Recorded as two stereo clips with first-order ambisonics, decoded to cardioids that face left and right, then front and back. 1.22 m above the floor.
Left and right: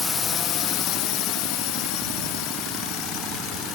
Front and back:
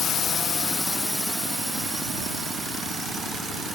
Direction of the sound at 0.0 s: 25° left.